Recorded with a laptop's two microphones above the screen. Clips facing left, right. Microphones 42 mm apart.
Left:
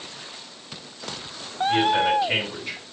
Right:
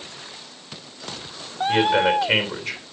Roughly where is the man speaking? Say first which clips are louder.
Right 2 dB; right.